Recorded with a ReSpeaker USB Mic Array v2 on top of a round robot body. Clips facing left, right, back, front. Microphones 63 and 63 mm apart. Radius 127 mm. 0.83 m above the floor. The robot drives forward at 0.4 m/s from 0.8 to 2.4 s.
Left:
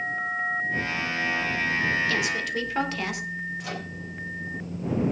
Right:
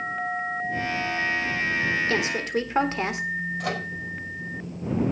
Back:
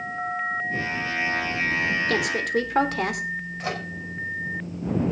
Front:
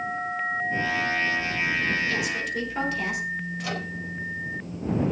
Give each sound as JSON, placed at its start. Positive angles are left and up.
{"t": 2.1, "sound": "a woman speaking", "azimuth_deg": -150, "distance_m": 3.5}
{"t": 3.6, "sound": "a microwave", "azimuth_deg": -125, "distance_m": 4.5}